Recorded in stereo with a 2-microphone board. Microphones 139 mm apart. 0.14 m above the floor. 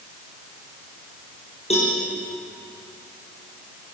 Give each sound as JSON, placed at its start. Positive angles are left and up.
{"t": 1.7, "sound": "a cowbell", "side_deg": 50, "distance_m": 7.0}